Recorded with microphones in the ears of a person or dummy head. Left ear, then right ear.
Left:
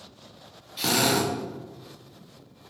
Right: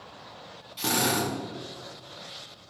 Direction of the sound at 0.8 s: 10° left (ahead or behind).